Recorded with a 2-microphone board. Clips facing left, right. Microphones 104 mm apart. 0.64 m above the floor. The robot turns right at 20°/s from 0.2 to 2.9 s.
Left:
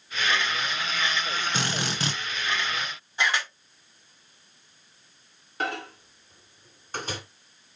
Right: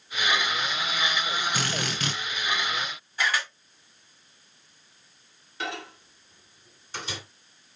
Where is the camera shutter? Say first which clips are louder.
Left 1 dB; 20° left (ahead or behind), 5 m.